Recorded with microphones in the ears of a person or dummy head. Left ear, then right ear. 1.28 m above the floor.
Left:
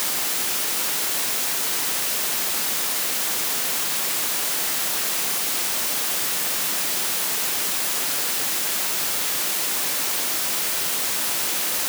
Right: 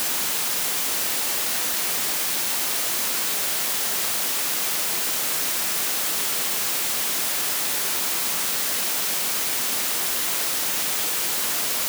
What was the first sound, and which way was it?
Only background noise.